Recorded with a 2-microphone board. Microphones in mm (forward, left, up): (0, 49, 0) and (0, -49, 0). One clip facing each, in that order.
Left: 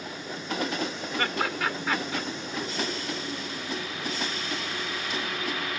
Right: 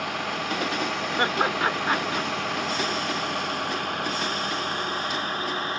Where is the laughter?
30° right (ahead or behind).